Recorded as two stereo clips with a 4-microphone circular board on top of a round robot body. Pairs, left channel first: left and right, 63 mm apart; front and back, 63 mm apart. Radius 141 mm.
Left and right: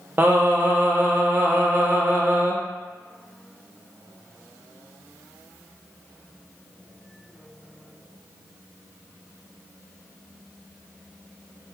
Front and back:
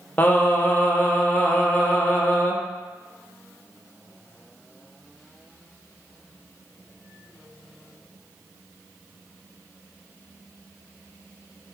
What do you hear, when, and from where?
0.2 s singing: 50° right, 0.9 m